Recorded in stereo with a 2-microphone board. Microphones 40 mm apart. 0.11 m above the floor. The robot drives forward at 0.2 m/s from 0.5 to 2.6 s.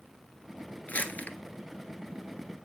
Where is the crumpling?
45° left (ahead or behind), 0.6 m.